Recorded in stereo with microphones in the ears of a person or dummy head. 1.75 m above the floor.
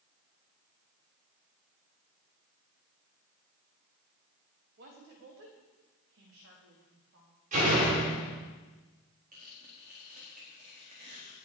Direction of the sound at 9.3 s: 55° right (ahead or behind).